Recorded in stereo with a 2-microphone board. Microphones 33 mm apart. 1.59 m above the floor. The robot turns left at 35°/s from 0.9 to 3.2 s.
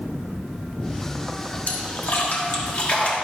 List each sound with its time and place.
1.7 s a splash: 95° left, 1.9 m; by 3.1 s 45° left, 1.9 m